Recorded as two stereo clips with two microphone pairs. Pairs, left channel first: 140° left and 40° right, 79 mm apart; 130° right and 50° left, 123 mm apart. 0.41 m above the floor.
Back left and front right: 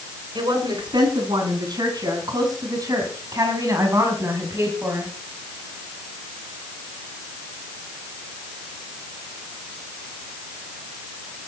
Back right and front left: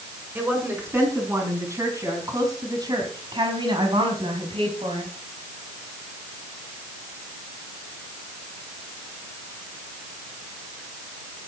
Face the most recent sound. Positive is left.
turn(degrees=20)